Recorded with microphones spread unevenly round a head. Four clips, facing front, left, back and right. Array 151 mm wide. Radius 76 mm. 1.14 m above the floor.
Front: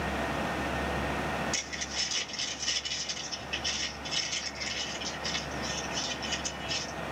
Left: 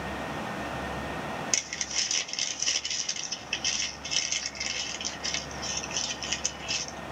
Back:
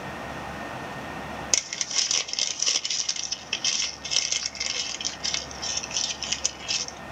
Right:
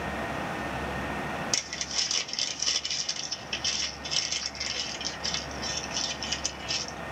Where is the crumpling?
175° right, 0.6 m.